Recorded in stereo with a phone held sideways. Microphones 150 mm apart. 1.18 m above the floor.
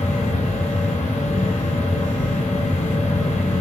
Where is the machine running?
50° left (ahead or behind), 4 m.